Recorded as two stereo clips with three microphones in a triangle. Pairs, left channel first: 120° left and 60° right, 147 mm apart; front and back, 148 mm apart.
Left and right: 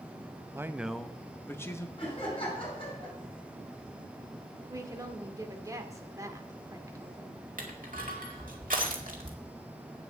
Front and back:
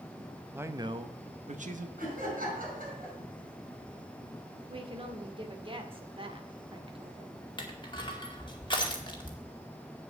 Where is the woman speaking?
130° right, 1.8 m.